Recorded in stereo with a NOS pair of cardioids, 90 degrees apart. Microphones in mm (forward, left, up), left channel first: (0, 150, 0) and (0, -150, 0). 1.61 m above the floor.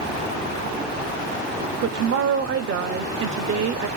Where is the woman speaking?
50° right, 0.9 m.